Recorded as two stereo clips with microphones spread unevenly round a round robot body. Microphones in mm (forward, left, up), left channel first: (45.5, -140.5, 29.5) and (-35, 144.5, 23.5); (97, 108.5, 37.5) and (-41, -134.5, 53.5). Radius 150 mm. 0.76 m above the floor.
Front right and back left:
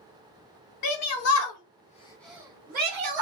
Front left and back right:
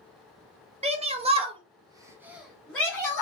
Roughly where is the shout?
Ahead right.